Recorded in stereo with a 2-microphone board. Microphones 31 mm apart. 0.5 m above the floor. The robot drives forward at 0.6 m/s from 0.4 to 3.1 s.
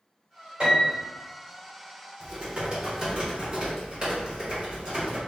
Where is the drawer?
I don't hear a drawer.